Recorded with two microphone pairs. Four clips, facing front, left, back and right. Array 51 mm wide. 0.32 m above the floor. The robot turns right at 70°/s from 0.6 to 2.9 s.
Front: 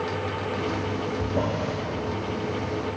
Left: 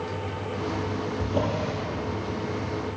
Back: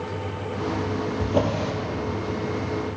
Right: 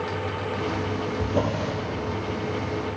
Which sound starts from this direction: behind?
A drawer, at 1.2 s.